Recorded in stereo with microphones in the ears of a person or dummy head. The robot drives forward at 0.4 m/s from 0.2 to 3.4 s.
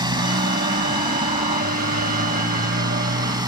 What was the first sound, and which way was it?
A motorcycle, 25° right (ahead or behind).